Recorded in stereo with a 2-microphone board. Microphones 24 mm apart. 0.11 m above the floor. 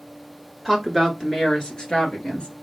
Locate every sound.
0.7 s a woman speaking: 15° left (ahead or behind), 1.2 m; by 2.5 s 50° left (ahead or behind), 1.7 m